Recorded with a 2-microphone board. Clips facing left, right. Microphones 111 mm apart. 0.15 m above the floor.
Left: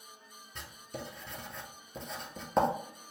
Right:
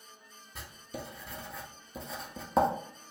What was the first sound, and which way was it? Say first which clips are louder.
Writing: right 1 dB; 5° right (ahead or behind).